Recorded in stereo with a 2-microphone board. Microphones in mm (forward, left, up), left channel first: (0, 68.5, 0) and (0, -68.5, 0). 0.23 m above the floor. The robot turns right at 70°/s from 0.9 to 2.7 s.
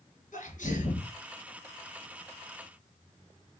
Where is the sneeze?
70° left (ahead or behind), 3.5 m; by 1.1 s 65° left (ahead or behind), 3.5 m.